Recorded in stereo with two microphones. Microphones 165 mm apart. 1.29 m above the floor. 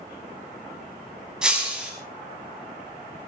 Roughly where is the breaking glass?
Centre.